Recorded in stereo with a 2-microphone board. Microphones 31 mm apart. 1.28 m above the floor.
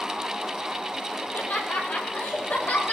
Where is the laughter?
85° left, 8 m.